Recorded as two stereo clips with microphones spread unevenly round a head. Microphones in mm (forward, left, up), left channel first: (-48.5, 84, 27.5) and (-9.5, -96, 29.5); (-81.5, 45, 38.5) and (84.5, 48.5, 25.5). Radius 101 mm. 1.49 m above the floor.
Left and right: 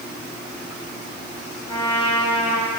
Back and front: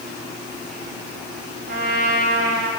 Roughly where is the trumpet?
Ahead left.